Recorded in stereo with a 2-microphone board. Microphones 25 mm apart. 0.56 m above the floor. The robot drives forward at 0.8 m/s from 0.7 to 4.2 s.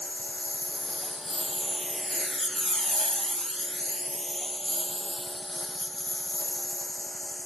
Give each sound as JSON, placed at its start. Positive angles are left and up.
{"t": 0.0, "sound": "a lawn mower", "side_deg": 0}